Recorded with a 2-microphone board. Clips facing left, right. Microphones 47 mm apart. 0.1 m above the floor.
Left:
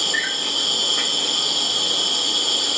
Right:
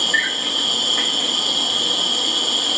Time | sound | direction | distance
0.0 | an insect | 20° right (ahead or behind) | 1.9 m